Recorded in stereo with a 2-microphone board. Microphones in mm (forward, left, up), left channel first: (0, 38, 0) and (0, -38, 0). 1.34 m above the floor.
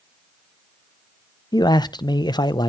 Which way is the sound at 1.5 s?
70° left (ahead or behind).